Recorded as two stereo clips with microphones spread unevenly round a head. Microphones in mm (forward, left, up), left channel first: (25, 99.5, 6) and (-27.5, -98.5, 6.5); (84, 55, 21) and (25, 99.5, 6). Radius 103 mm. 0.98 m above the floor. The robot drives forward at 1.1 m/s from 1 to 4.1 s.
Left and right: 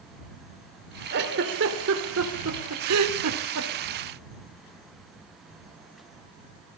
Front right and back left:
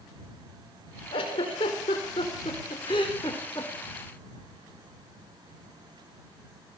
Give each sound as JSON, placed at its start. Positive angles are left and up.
{"t": 1.1, "sound": "a giggle", "azimuth_deg": -65, "distance_m": 4.0}